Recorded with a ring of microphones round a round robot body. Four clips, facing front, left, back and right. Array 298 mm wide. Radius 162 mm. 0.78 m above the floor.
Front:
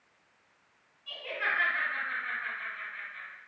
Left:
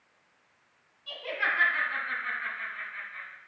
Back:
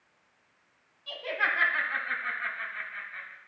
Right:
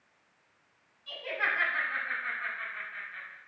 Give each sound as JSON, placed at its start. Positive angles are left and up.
{"t": 1.1, "sound": "laughter", "azimuth_deg": 180, "distance_m": 5.0}